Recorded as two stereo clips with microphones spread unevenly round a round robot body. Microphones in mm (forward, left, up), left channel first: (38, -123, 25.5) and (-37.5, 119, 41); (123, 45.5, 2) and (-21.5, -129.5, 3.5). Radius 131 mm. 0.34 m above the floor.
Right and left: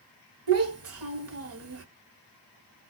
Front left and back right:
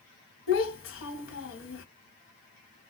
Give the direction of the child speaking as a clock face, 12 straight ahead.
9 o'clock.